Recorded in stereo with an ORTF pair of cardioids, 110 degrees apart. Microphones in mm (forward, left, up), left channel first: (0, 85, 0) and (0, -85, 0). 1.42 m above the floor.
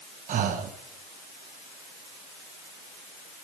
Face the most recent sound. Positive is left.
turn(degrees=-50)